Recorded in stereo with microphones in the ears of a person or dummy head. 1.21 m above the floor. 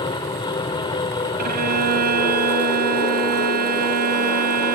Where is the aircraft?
25° left (ahead or behind).